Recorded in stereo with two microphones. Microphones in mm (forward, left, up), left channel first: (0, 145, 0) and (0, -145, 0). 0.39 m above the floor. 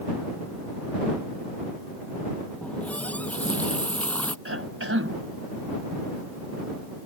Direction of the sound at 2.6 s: 5° left (ahead or behind).